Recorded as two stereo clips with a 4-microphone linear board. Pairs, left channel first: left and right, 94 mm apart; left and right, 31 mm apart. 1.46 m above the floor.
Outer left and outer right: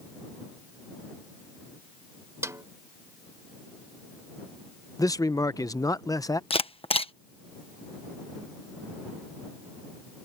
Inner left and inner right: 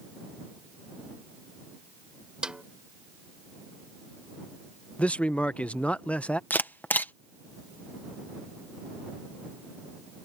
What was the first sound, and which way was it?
A snare drum, 30° right (ahead or behind).